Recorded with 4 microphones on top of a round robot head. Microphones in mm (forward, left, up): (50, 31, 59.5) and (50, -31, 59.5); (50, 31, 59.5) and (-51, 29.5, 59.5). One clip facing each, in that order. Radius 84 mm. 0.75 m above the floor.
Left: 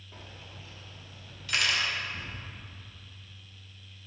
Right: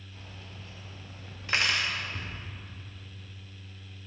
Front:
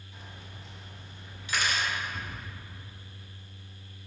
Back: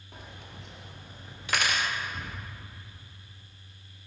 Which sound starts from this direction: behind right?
Cutlery clinking, at 1.5 s.